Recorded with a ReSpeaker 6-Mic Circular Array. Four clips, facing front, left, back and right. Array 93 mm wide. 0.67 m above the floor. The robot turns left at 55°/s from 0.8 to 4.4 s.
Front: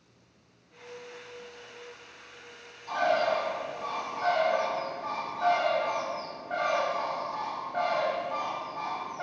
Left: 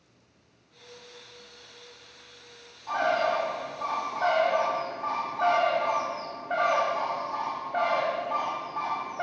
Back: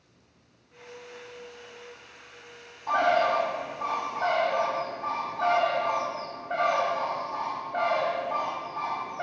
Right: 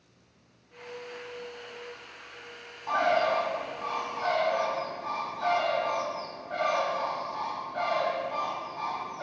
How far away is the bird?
About 1.5 m.